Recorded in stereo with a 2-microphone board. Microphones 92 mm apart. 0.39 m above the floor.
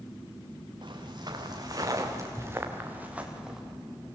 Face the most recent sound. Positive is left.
turn(degrees=-5)  # may be behind; listen again after turning